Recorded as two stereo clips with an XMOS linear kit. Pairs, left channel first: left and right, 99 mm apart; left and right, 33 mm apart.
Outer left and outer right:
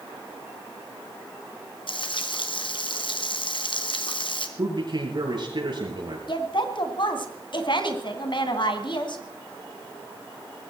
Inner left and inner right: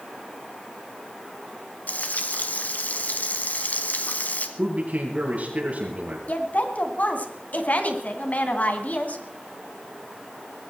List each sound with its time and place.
1.9 s frying: 60° left (ahead or behind), 1.9 m
4.6 s a man speaking: 50° right (ahead or behind), 6.5 m
6.3 s a woman speaking: 55° left (ahead or behind), 2.5 m